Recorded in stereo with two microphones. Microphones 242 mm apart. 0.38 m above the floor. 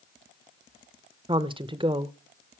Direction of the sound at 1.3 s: 20° right (ahead or behind).